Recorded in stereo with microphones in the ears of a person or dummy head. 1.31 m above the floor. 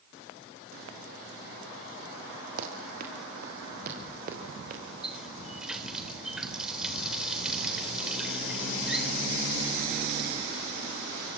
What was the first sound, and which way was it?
Running footsteps, 55° right (ahead or behind).